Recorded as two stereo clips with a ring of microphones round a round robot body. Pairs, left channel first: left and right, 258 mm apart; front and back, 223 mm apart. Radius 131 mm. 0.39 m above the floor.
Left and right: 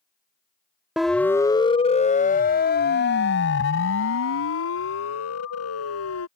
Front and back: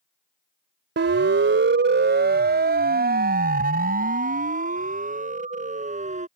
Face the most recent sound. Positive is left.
turn(degrees=120)